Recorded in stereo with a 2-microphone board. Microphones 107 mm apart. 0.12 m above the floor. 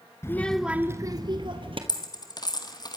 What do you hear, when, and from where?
0.2 s a child speaking: 25° left (ahead or behind), 1.1 m; by 1.8 s 55° right (ahead or behind), 2 m
1.9 s a dropped coin: 40° left (ahead or behind), 2.0 m